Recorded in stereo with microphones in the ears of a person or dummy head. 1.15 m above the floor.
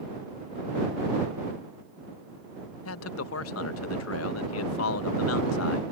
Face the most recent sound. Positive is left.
turn(degrees=75)  # may be behind; listen again after turning